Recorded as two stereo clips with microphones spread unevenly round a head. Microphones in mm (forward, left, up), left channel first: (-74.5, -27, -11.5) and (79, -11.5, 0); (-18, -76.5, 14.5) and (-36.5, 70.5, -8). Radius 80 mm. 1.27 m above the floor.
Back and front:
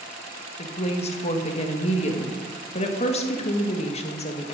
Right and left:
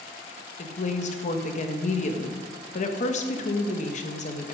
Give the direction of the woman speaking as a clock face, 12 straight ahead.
4 o'clock.